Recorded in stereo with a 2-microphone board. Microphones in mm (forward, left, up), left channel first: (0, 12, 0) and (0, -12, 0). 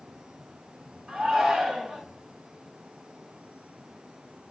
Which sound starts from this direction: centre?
A shout, at 1.1 s.